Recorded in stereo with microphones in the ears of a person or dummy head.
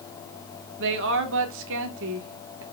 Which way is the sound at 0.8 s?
65° right (ahead or behind).